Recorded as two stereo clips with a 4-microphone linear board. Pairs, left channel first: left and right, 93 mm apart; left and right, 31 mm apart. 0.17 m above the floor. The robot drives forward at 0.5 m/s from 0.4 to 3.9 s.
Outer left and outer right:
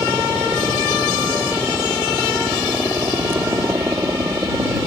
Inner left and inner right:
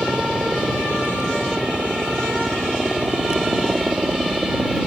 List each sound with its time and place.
0.0 s a helicopter: 30° right (ahead or behind)